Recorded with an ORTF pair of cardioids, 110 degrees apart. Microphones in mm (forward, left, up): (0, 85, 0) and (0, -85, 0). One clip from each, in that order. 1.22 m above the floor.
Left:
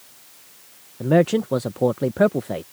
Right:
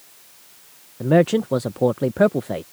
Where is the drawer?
I don't hear a drawer.